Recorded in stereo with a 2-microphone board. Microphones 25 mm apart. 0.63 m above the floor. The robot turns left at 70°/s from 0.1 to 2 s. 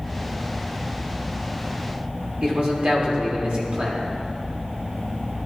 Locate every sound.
2.4 s a man speaking: 45° right (ahead or behind), 2 m